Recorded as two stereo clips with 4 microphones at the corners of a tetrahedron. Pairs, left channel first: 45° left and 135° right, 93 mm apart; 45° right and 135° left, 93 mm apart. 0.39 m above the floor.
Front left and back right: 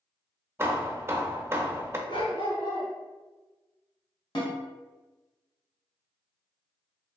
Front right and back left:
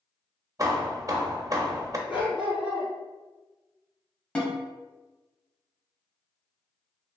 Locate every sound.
0.6 s hammering: 165° left, 0.5 m
2.1 s a dog barking: 55° left, 1.7 m
4.3 s a snare drum: 30° left, 1.3 m